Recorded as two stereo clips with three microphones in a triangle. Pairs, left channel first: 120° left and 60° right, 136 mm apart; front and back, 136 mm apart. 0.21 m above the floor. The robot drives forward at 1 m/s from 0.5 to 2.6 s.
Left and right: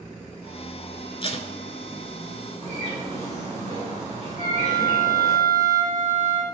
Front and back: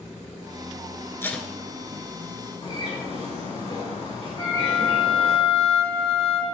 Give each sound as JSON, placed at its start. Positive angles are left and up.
{"t": 1.2, "sound": "tape being pulled", "azimuth_deg": 70, "distance_m": 0.7}
{"t": 2.6, "sound": "a bird", "azimuth_deg": 145, "distance_m": 3.0}
{"t": 4.4, "sound": "a flute", "azimuth_deg": 120, "distance_m": 4.5}